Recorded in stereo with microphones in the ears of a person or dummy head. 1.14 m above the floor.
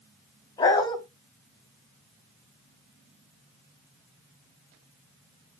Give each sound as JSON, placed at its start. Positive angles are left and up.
{"t": 0.6, "sound": "a dog barking", "side_deg": 20, "distance_m": 3.0}